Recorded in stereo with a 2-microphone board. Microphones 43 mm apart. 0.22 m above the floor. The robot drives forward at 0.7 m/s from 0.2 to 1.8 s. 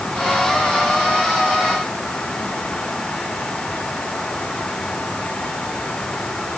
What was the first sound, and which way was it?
Only background noise.